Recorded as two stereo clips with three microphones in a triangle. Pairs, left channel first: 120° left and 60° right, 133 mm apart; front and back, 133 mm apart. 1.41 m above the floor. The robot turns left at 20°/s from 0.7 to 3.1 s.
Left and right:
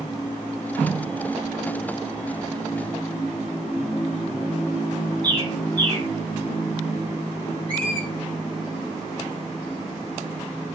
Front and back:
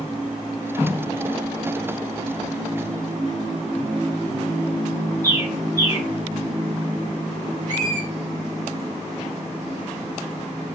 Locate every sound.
5.2 s a bird: 115° right, 3.5 m
7.7 s a squeak: 160° right, 7.5 m